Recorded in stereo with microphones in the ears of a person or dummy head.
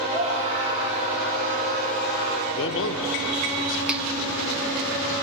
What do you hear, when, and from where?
0.1 s a scream: 35° right (ahead or behind), 7 m; by 2.5 s 45° right (ahead or behind), 6.5 m
2.5 s a man speaking: 70° left (ahead or behind), 1.0 m
3.9 s a finger snap: 5° right (ahead or behind), 0.7 m